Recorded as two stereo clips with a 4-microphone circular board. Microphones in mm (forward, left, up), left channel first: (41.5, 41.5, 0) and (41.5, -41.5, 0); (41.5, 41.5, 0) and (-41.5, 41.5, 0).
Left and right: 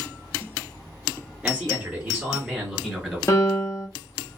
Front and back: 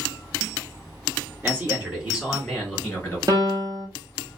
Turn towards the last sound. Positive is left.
turn(degrees=140)